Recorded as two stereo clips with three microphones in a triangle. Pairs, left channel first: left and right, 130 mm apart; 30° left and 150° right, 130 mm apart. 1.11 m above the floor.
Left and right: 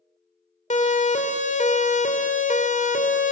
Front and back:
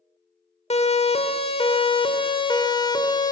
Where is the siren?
65° left, 3.5 m; by 3.3 s 90° left, 3.5 m.